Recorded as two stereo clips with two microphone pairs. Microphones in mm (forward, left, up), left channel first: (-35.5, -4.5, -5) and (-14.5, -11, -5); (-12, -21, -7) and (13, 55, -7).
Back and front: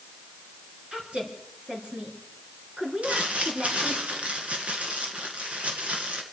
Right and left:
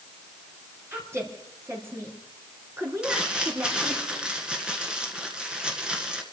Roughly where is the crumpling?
Ahead.